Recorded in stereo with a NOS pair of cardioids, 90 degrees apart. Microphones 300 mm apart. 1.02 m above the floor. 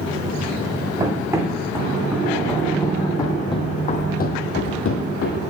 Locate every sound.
1.0 s running footsteps: 15° right, 4.5 m; by 5.4 s 65° left, 2.5 m